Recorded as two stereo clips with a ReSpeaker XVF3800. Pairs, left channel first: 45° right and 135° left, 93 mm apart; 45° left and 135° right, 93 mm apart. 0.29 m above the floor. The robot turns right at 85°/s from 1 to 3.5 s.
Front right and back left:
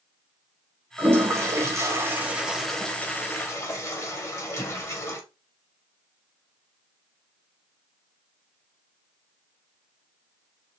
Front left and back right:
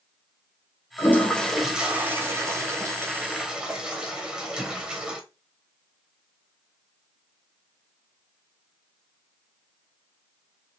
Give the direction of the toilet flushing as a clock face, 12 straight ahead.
9 o'clock.